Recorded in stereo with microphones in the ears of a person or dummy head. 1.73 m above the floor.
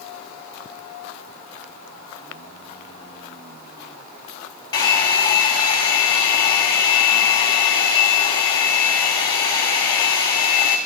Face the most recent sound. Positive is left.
turn(degrees=15)  # may be behind; listen again after turning